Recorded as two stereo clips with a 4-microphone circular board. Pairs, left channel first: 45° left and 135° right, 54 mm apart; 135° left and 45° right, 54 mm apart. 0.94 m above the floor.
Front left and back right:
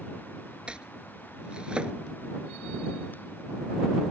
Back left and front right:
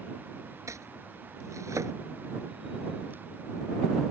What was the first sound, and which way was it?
Chopping, 65° right.